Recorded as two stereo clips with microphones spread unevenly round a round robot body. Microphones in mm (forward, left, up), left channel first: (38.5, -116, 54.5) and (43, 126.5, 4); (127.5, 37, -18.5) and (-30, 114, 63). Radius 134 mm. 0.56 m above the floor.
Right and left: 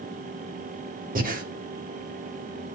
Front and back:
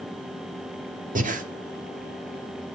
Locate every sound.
1.1 s breathing: 100° left, 1.7 m